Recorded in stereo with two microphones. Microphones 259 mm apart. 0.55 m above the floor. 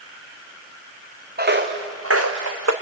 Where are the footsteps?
35° right (ahead or behind), 2.5 m; by 2.7 s 80° right, 2.5 m.